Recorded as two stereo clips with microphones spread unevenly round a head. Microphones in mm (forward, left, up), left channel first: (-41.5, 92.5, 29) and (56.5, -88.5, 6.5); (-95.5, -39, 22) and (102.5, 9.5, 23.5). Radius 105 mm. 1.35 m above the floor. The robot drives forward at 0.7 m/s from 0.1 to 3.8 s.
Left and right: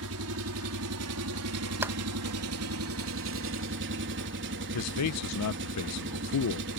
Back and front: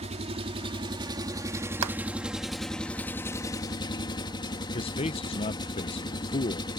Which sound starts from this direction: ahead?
A clap, at 1.8 s.